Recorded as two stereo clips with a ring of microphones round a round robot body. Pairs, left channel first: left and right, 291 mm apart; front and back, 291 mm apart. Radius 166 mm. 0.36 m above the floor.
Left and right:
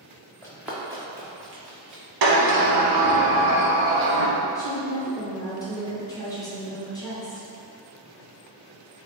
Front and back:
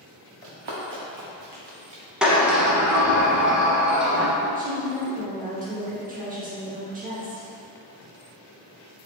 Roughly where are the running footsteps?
Behind.